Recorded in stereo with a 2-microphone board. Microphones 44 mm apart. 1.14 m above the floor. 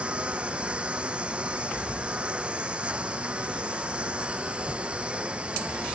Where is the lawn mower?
25° right (ahead or behind).